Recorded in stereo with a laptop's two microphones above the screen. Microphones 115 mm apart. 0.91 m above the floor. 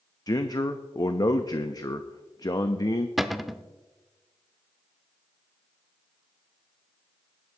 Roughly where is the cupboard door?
Centre.